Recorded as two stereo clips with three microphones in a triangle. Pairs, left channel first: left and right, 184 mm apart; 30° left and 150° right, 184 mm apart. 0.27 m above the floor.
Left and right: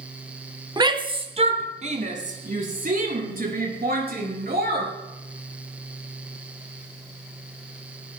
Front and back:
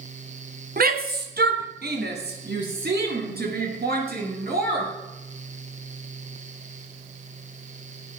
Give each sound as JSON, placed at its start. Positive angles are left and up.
{"t": 0.8, "sound": "a shout", "azimuth_deg": -155, "distance_m": 1.5}